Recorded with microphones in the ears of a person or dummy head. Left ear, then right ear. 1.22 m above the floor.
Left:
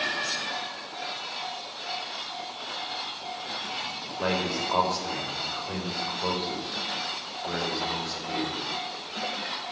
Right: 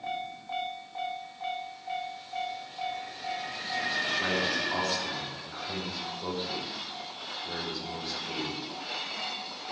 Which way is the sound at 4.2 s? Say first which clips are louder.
Even; 30° left (ahead or behind).